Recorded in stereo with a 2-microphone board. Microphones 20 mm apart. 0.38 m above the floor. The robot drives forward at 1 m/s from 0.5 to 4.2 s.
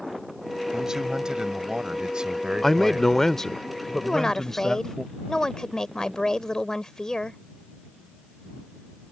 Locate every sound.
0.7 s a man speaking: 25° right (ahead or behind); by 3.4 s 40° right (ahead or behind)
2.6 s a man speaking: 20° left (ahead or behind); by 5.0 s 10° left (ahead or behind)
4.0 s a woman speaking: 30° left (ahead or behind)